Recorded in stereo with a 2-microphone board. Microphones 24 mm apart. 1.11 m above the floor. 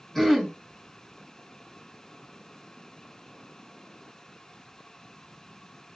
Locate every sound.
0.1 s throat clearing: 10° left (ahead or behind), 1.5 m